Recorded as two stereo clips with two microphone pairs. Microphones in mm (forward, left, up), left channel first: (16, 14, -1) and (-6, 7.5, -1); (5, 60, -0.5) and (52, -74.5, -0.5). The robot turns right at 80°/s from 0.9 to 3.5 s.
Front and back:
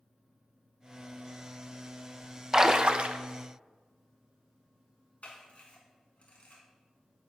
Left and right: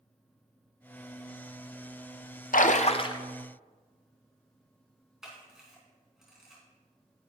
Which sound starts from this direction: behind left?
A splash, at 2.5 s.